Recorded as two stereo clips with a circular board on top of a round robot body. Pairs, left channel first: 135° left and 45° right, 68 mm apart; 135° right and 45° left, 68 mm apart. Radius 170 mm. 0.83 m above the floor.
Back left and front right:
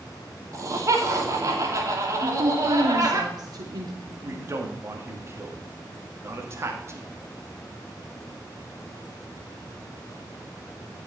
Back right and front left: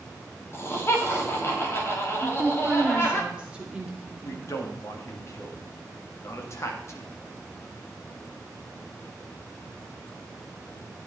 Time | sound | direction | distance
0.5 | laughter | 85° right | 3 m
2.2 | a woman speaking | 30° right | 3 m
4.2 | a man speaking | 95° right | 2.5 m